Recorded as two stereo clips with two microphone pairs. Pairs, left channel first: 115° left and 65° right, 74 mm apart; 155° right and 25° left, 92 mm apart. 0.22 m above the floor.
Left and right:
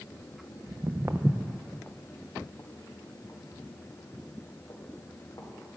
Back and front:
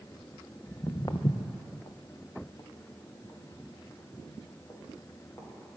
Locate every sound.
0.7 s footsteps: 95° right, 0.9 m; by 5.5 s 145° left, 4 m